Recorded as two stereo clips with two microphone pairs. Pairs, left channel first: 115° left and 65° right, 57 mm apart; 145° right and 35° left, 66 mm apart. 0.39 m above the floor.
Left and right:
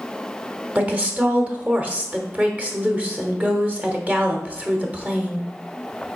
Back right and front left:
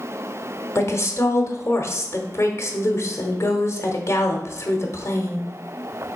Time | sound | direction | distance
0.8 | a woman speaking | 120° right | 1.3 m